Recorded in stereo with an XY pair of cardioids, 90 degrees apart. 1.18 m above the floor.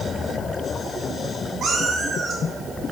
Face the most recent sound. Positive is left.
turn(degrees=-65)